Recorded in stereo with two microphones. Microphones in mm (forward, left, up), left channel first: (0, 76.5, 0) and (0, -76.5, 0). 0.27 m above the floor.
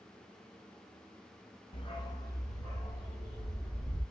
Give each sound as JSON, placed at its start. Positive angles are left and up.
{"t": 1.7, "sound": "a dog barking", "side_deg": 35, "distance_m": 0.6}